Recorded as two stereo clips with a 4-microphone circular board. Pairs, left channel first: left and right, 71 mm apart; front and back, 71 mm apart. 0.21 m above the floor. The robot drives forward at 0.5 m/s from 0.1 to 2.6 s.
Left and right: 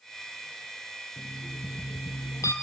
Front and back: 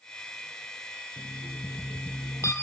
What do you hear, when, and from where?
1.2 s an alarm clock: 40° left, 3 m; by 2.5 s 50° left, 2.5 m